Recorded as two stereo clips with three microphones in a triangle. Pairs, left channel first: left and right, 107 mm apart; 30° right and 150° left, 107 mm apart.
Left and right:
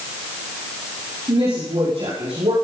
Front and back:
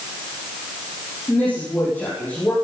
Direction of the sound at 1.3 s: 105° right.